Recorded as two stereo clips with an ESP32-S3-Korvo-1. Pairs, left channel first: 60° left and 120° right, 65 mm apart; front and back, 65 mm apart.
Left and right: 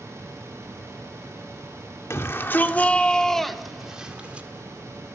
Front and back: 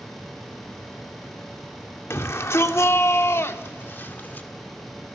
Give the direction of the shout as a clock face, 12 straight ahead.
11 o'clock.